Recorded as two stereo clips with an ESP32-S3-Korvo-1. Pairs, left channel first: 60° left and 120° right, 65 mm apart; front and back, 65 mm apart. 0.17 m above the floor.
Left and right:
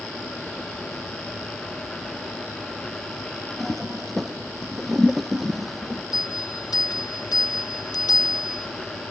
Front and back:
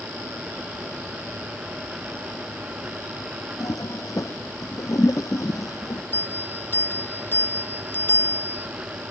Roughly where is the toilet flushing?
Ahead right.